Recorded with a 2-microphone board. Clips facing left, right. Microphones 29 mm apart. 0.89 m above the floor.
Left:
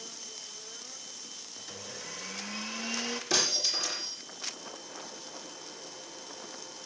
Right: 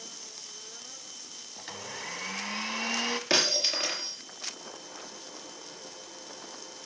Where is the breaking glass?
55° right (ahead or behind), 5.5 m.